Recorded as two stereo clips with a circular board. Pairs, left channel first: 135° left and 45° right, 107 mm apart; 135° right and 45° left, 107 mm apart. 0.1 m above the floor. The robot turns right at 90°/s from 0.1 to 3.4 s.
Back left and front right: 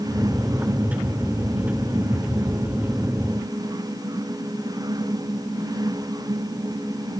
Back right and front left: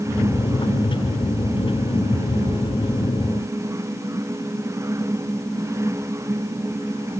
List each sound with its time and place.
Only background noise.